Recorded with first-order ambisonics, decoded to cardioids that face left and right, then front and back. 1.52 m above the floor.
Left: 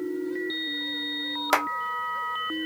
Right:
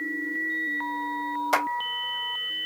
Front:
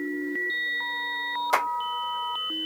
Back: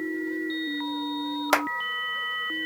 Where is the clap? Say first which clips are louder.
Left 1 dB, back 1 dB; 145° left, 0.9 m.